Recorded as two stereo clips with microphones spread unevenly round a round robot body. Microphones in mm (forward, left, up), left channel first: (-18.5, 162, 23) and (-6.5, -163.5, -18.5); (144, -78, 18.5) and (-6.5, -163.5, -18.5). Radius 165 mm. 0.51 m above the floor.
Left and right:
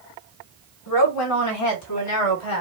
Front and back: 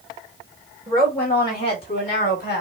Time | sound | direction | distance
0.9 | a woman speaking | 130° left | 1.9 m